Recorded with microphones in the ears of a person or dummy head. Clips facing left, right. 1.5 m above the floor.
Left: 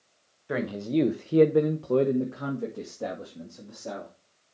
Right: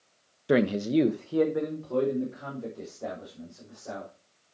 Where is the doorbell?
No doorbell in this recording.